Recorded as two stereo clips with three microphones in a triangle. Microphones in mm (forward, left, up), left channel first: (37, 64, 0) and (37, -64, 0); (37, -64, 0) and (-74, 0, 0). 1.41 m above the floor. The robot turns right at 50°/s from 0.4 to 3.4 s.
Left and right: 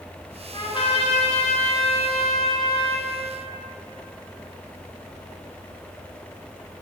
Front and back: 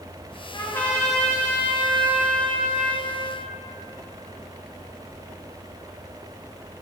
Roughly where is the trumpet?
Ahead left.